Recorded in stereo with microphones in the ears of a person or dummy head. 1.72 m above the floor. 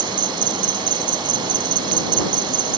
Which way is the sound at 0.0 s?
35° right (ahead or behind).